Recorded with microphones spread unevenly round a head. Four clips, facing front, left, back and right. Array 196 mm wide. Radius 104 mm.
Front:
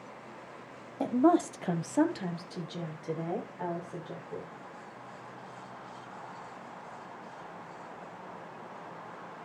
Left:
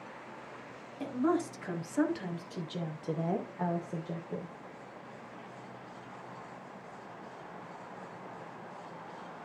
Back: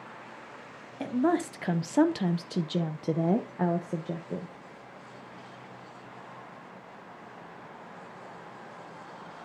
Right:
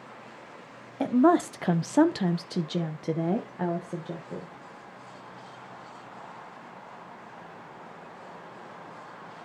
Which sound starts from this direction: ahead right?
A woman speaking, at 1.0 s.